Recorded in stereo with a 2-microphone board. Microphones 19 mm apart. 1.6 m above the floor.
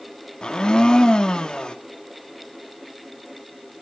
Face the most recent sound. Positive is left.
turn(degrees=50)  # may be behind; listen again after turning